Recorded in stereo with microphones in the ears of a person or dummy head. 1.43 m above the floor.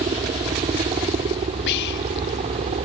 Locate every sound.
0.0 s a helicopter: 25° right (ahead or behind); by 2.9 s 30° right (ahead or behind)
1.7 s whispering: 60° left (ahead or behind)